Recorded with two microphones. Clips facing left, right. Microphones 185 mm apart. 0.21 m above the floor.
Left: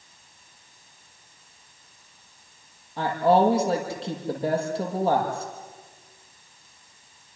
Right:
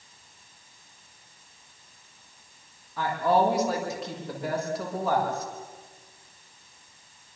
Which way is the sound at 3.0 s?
30° left (ahead or behind).